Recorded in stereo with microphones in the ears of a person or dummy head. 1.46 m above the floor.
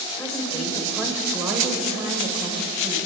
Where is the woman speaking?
5° left (ahead or behind), 5.5 m; by 3.0 s 40° right (ahead or behind), 6 m.